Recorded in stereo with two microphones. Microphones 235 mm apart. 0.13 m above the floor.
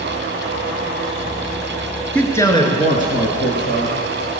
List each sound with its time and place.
2.1 s a man speaking: 5° left (ahead or behind), 1.9 m; by 4.0 s 50° left (ahead or behind), 2.5 m